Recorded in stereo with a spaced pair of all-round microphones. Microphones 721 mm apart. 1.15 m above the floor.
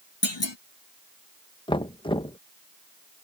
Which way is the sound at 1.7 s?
5° left (ahead or behind).